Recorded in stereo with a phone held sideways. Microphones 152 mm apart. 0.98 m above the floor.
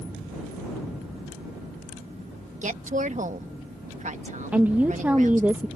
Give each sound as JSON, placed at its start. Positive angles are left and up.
{"t": 2.6, "sound": "a woman speaking", "side_deg": -55}
{"t": 4.5, "sound": "a woman speaking", "side_deg": -10}